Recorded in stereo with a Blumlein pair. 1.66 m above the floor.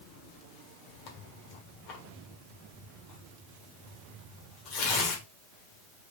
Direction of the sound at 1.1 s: 40° left.